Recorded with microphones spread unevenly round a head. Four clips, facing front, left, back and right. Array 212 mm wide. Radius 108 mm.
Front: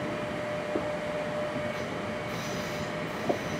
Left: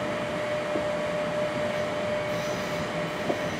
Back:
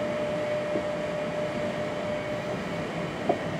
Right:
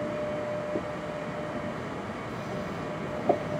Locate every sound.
Only background noise.